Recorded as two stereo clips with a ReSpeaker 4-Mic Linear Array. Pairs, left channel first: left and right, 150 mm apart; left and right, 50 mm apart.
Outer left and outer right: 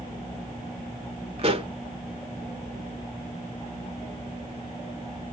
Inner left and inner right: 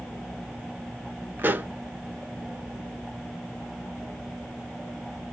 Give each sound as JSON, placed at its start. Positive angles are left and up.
{"t": 1.4, "sound": "a pop", "side_deg": -40, "distance_m": 0.5}